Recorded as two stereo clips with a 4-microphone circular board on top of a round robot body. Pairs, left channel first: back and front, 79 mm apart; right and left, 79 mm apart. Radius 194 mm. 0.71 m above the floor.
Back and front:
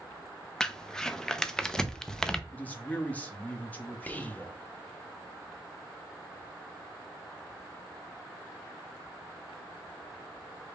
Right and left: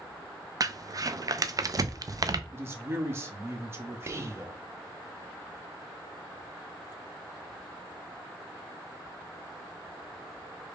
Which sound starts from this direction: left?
Crumpling, at 0.6 s.